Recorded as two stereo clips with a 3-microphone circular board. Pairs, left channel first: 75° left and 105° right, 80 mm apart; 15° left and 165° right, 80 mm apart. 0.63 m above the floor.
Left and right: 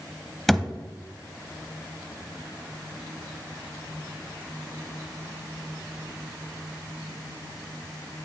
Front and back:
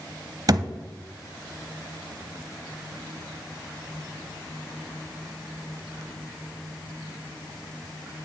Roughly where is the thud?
Behind.